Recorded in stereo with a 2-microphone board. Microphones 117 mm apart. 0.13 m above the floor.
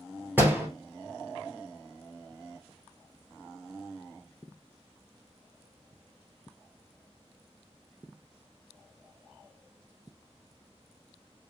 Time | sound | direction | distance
0.4 | a door slam | 15° right (ahead or behind) | 1.6 m